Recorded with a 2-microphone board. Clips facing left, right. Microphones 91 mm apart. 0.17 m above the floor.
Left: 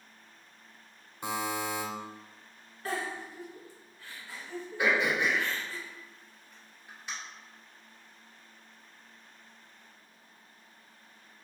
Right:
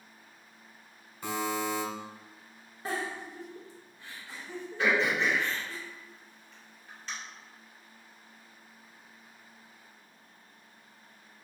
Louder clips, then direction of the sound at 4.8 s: Even; 15° left (ahead or behind).